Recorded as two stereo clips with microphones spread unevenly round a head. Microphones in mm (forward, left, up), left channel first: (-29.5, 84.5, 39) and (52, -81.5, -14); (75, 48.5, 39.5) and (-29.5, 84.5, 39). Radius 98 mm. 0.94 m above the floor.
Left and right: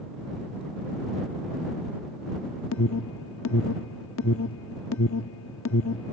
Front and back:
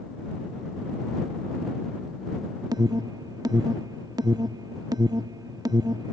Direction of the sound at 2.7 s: 105° left.